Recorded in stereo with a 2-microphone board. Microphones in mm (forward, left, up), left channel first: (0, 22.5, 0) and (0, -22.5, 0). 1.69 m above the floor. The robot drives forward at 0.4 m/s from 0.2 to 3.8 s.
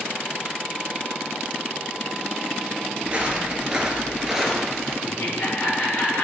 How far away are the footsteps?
About 1.8 m.